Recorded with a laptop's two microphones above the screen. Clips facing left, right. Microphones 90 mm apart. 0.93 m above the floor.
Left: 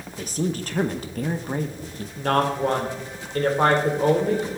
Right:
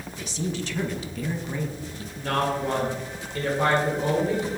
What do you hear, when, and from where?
0.1 s a woman speaking: 50° left (ahead or behind), 0.8 m
2.2 s a woman speaking: 55° left (ahead or behind), 3 m